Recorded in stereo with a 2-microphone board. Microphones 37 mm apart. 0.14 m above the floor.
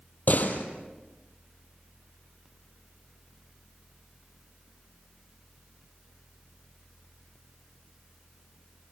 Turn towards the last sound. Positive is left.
turn(degrees=50)  # may be behind; listen again after turning